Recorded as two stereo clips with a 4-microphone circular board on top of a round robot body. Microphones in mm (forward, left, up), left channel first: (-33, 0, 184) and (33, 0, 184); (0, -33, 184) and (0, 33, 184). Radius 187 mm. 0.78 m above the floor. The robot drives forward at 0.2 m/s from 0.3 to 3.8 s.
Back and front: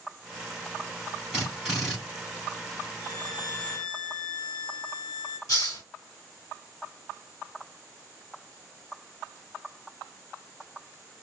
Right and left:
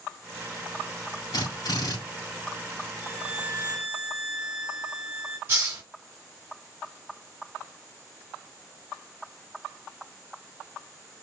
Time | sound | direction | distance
1.3 | a drill | 85° right | 4.5 m
3.0 | a violin | 165° left | 1.8 m
5.5 | a hiss | 145° left | 0.8 m